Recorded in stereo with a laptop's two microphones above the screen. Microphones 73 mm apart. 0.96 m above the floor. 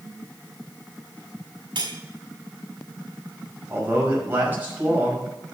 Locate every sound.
1.8 s cutlery clinking: 85° right, 1.9 m
3.7 s a man speaking: 25° right (ahead or behind), 5.5 m